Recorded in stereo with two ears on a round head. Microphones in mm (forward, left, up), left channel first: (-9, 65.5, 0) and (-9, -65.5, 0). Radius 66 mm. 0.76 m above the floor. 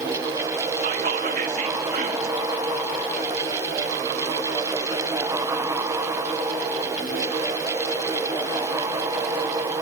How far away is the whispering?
About 1.0 m.